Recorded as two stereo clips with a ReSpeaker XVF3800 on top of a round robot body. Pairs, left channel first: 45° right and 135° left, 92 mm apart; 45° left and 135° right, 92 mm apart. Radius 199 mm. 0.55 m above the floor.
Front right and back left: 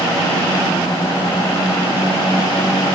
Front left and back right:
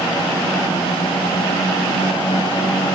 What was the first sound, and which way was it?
Only background noise.